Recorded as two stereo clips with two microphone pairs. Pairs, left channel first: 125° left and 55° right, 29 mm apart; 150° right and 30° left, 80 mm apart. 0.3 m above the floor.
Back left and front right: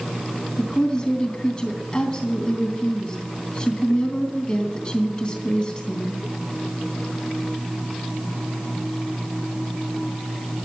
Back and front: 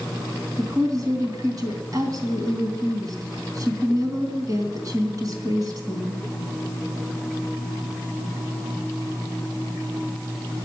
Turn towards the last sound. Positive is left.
turn(degrees=65)